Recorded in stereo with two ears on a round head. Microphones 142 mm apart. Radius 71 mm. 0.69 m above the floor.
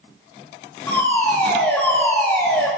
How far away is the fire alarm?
About 5.5 m.